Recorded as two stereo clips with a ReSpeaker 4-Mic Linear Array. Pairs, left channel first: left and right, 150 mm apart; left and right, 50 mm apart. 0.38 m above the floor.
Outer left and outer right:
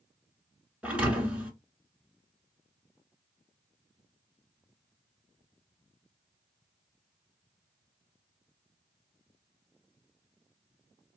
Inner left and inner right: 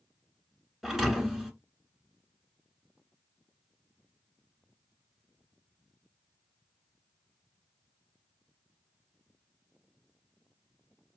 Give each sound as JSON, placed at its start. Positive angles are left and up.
{"t": 0.8, "sound": "a thud", "side_deg": -10, "distance_m": 1.0}